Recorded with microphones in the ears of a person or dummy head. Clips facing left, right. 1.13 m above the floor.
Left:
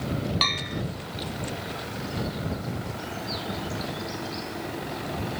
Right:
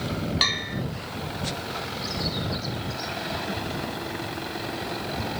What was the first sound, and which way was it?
A bell, 10° right (ahead or behind).